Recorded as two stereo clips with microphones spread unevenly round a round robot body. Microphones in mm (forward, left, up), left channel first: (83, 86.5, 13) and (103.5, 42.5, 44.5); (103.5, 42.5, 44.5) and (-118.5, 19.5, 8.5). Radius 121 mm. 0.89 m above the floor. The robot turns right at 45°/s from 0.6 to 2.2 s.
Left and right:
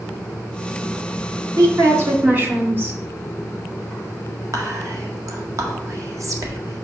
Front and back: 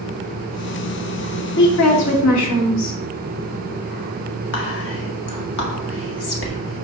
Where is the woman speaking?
40° right, 1.9 m; by 3.0 s 10° right, 1.9 m.